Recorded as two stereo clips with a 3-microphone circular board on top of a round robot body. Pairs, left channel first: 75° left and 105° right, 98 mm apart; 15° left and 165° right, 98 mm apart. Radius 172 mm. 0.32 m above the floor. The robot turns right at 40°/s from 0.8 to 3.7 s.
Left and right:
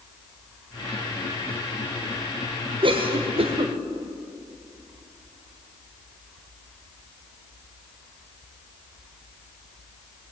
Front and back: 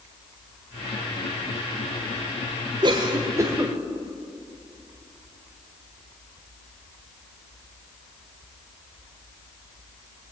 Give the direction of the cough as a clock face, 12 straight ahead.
4 o'clock.